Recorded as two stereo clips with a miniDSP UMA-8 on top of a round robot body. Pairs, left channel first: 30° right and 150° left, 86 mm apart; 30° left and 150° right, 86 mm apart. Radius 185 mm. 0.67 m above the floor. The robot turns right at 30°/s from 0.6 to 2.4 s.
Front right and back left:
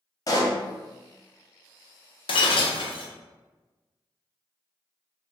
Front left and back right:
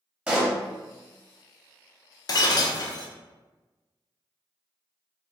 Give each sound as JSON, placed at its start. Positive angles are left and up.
{"t": 0.3, "sound": "a pop", "azimuth_deg": -75, "distance_m": 1.0}
{"t": 2.3, "sound": "breaking glass", "azimuth_deg": -15, "distance_m": 0.6}